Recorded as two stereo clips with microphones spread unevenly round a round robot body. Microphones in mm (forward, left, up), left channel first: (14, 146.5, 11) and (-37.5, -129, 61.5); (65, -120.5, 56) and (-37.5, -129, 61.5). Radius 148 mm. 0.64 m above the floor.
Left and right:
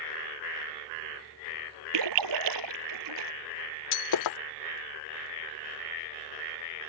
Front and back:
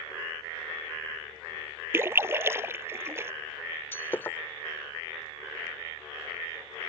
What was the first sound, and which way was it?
A splash, 110° right.